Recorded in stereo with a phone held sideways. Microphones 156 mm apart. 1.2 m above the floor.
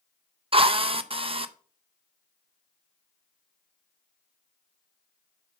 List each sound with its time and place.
0.5 s a drill: 35° right (ahead or behind), 0.5 m